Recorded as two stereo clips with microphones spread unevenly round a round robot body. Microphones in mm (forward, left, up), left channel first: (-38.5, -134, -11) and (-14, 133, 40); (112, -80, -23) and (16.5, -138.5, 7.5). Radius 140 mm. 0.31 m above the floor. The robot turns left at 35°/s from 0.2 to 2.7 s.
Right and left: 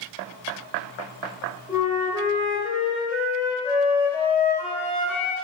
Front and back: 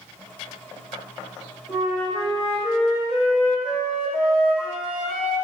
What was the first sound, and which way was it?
A flute, 5° right.